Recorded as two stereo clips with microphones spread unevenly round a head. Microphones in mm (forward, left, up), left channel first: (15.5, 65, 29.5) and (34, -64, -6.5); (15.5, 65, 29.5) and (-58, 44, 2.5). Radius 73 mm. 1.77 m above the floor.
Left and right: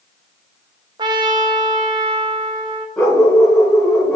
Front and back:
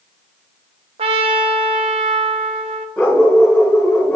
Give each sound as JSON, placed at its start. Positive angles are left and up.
{"t": 1.0, "sound": "a trumpet", "azimuth_deg": -150, "distance_m": 0.6}
{"t": 3.0, "sound": "a dog barking", "azimuth_deg": 45, "distance_m": 1.7}